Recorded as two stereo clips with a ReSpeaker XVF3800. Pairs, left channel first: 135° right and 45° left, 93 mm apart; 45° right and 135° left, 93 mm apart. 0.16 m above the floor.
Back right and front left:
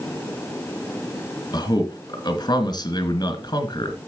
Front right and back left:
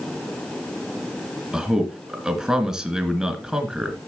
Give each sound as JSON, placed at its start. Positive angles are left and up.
{"t": 1.5, "sound": "a man speaking", "azimuth_deg": -145, "distance_m": 2.0}